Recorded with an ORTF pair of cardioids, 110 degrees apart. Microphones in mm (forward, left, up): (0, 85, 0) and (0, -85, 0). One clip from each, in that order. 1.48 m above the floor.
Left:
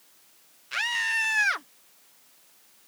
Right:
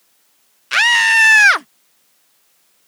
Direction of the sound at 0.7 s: 70° right.